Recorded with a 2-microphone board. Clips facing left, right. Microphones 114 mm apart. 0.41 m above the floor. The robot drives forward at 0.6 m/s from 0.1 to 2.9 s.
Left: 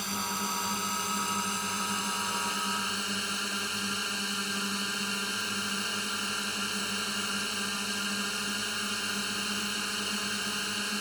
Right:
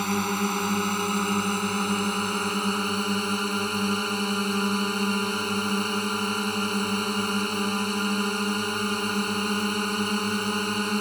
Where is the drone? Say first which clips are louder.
Right 9 dB; 60° right (ahead or behind); by 11.0 s 50° right (ahead or behind).